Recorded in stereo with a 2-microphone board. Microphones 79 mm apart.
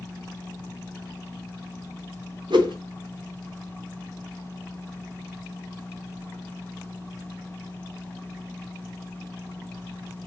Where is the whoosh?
70° right (ahead or behind), 1.2 m.